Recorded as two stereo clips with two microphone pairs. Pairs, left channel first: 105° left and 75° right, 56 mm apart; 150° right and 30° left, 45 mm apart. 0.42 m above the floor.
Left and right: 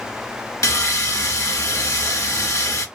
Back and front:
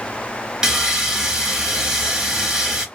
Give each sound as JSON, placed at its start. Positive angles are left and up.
{"t": 0.6, "sound": "sawing", "azimuth_deg": 105, "distance_m": 0.9}